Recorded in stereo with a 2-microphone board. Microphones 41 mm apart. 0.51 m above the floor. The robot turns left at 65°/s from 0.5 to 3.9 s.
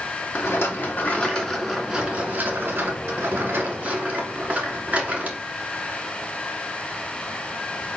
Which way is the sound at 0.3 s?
75° left.